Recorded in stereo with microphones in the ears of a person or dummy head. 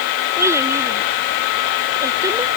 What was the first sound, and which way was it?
A child speaking, 15° right (ahead or behind).